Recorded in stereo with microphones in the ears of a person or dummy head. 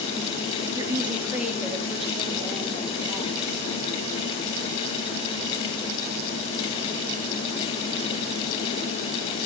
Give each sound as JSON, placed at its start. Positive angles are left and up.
{"t": 0.8, "sound": "a woman speaking", "side_deg": -20, "distance_m": 1.6}